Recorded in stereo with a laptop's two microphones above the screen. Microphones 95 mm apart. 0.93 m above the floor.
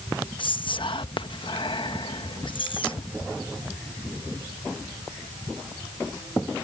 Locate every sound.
0.4 s whispering: 60° left (ahead or behind)